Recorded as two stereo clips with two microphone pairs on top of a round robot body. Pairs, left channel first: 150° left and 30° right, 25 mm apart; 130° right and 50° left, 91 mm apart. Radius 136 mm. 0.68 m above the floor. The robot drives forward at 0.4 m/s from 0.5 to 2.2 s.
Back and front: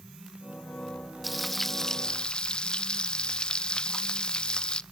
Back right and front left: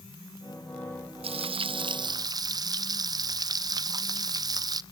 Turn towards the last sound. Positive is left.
turn(degrees=100)